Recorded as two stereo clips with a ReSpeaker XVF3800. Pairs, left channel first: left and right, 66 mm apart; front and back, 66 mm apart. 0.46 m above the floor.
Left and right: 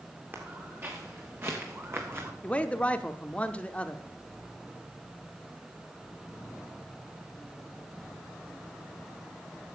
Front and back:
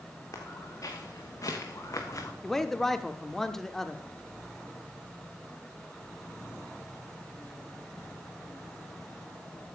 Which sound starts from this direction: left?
A man speaking, at 2.4 s.